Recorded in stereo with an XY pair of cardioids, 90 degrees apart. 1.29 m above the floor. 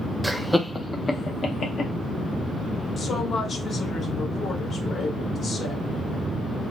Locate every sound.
0.2 s laughter: 15° right, 0.8 m; by 1.9 s 55° left, 1.4 m
3.0 s a woman speaking: 50° left, 1.8 m